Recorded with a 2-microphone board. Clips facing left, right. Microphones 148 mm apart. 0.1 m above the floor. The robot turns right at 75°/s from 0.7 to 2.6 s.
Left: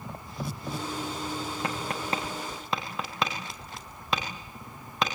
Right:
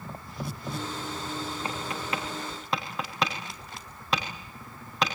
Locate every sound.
1.6 s tapping: 70° left (ahead or behind), 6 m; by 5.2 s centre (ahead or behind), 6 m